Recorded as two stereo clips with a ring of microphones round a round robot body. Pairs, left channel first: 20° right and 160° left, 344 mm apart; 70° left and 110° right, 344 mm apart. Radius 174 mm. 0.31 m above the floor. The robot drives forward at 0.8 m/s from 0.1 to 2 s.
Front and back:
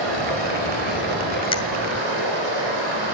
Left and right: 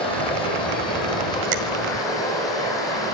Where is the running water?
145° left, 9.5 m; by 3.1 s 150° left, 11 m.